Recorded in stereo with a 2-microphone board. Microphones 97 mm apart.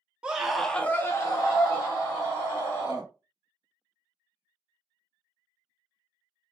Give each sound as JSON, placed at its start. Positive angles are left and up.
{"t": 0.2, "sound": "a scream", "side_deg": -10, "distance_m": 0.7}